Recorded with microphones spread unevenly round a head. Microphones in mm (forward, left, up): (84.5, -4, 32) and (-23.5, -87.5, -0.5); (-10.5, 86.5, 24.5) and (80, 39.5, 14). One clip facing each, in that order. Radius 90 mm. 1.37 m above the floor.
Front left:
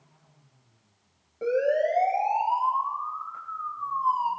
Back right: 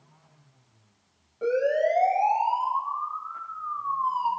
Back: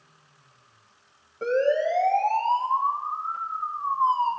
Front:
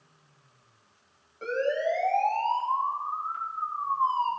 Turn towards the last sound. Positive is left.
turn(degrees=100)